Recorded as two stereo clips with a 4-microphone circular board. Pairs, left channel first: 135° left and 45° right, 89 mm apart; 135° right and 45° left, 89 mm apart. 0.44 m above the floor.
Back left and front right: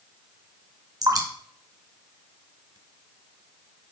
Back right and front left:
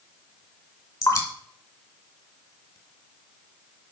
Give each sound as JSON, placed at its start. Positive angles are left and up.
{"t": 1.0, "sound": "dripping", "azimuth_deg": -90, "distance_m": 1.6}